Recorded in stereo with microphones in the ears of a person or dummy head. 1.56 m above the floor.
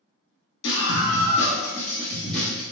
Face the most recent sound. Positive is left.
turn(degrees=-10)  # may be behind; listen again after turning